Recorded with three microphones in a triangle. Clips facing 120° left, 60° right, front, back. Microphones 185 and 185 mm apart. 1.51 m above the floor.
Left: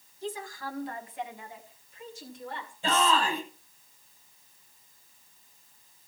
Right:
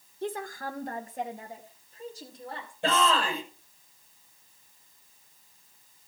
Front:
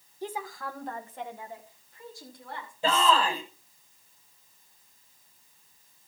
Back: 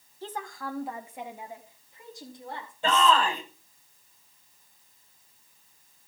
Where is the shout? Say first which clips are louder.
Even, back 1 dB; 80° right, 8.5 m.